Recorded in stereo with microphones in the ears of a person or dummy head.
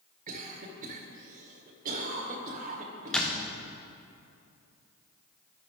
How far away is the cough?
About 1.6 m.